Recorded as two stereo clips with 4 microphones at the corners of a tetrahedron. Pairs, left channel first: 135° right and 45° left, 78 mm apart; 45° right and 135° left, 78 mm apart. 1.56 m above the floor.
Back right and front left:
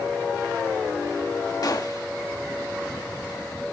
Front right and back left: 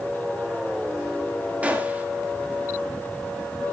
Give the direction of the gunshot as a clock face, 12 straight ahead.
5 o'clock.